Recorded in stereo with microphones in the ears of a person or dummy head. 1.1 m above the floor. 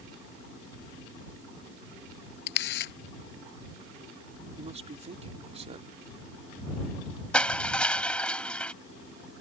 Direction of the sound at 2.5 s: 70° left (ahead or behind).